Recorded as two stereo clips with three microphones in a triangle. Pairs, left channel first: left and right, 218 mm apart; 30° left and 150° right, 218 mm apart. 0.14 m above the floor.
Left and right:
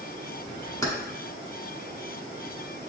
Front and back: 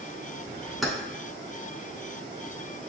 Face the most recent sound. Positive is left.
turn(degrees=120)